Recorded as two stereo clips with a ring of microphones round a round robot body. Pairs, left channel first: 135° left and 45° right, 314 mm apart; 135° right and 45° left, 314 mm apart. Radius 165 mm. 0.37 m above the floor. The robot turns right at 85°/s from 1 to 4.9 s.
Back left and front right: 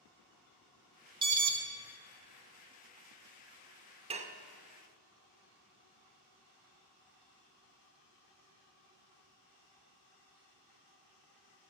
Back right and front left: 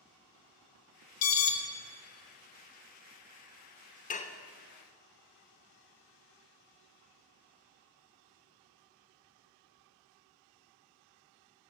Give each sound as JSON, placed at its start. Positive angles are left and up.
{"t": 1.2, "sound": "an alarm", "azimuth_deg": -115, "distance_m": 0.9}
{"t": 4.1, "sound": "dishes clattering", "azimuth_deg": -100, "distance_m": 0.5}